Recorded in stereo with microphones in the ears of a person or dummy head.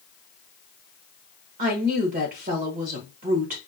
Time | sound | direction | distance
1.6 | a woman speaking | 40° right (ahead or behind) | 1.6 m